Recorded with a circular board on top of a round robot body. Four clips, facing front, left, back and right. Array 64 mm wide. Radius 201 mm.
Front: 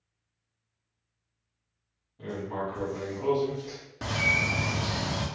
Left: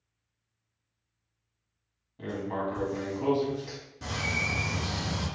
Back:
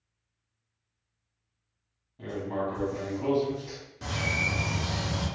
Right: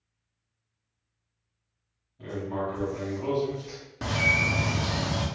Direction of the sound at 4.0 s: 55° right.